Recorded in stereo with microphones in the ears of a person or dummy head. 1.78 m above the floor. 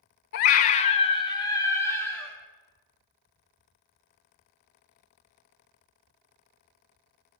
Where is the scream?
50° left (ahead or behind), 0.5 m; by 2.4 s 10° left (ahead or behind), 1.2 m.